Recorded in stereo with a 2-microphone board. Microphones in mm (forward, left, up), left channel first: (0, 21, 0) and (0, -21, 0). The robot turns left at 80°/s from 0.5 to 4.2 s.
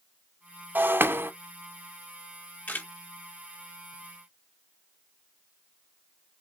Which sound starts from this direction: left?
A camera shutter, at 2.7 s.